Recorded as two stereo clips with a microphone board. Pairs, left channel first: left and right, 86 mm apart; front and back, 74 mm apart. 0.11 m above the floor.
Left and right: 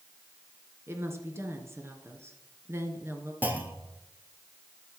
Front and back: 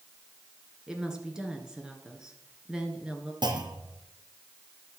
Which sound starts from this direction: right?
A woman speaking, at 0.9 s.